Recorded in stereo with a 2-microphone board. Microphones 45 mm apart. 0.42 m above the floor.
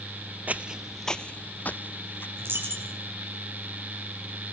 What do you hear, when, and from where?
0.5 s footsteps: 40° right (ahead or behind), 0.7 m; by 2.3 s 55° left (ahead or behind), 1.6 m
2.4 s a dropped coin: 60° right (ahead or behind), 6 m